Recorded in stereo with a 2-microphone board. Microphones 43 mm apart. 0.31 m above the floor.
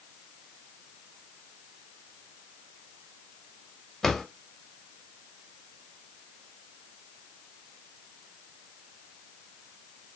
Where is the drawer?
10° left (ahead or behind), 0.6 m.